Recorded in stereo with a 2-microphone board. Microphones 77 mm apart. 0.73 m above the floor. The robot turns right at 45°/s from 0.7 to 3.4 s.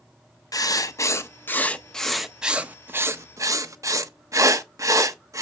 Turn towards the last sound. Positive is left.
turn(degrees=-125)